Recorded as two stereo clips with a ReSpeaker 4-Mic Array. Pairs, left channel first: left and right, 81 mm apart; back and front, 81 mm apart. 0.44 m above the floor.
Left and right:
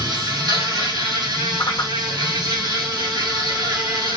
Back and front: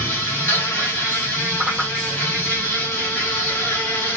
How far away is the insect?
About 2 m.